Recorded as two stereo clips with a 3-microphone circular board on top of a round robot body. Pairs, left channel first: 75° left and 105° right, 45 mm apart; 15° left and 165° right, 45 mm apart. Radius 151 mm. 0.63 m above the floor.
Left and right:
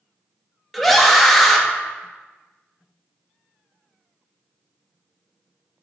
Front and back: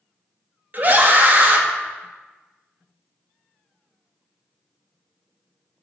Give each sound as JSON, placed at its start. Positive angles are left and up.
{"t": 0.7, "sound": "a scream", "azimuth_deg": 165, "distance_m": 1.3}